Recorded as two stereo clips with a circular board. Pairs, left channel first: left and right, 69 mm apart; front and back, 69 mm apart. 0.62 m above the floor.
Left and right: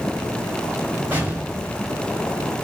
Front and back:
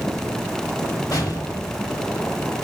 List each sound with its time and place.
1.1 s an explosion: 30° right, 1.4 m